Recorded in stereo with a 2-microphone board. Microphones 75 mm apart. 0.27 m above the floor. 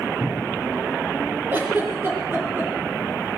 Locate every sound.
0.2 s a cupboard door: 10° left (ahead or behind), 2 m
1.5 s a giggle: 30° right (ahead or behind), 6.5 m